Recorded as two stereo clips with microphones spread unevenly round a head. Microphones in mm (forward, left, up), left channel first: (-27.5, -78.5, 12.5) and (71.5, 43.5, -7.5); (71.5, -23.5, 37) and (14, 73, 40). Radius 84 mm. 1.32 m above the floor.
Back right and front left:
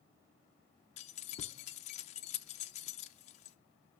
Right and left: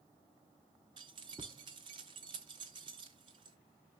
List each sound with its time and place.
1.0 s keys jangling: 175° right, 0.5 m